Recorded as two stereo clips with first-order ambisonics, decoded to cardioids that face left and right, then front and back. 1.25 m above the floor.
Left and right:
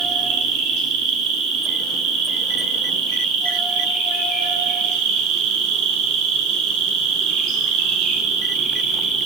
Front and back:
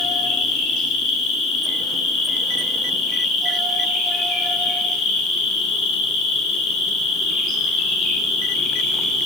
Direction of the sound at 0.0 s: 50° right.